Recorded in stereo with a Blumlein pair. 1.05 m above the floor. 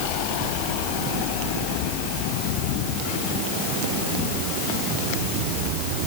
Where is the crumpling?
I don't hear crumpling.